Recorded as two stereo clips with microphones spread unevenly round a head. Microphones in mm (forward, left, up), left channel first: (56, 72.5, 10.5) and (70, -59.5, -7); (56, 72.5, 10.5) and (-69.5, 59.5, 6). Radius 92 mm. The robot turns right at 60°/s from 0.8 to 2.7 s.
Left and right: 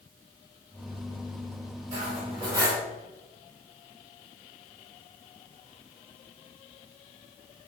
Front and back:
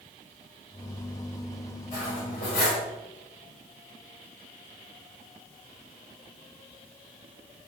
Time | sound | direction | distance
1.9 | cutlery clinking | 60° right | 3.5 m